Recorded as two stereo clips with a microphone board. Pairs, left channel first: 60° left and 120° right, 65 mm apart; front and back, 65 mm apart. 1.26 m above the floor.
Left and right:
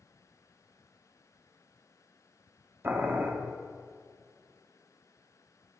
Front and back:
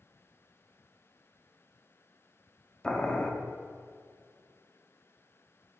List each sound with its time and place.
2.8 s boiling: 75° right, 1.0 m